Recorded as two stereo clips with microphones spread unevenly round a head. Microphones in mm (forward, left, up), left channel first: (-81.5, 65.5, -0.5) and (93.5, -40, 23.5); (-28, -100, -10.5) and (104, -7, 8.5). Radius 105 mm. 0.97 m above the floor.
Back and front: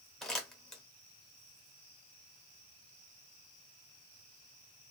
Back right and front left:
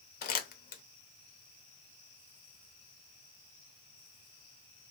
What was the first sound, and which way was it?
Crumpling, 120° right.